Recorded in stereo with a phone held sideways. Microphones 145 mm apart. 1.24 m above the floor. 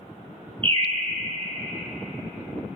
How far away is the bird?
About 0.7 m.